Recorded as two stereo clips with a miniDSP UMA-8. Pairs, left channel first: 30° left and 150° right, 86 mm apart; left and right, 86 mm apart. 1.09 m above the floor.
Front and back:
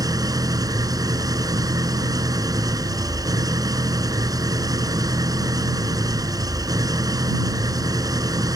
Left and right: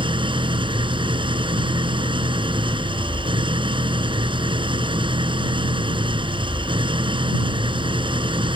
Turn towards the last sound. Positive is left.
turn(degrees=-105)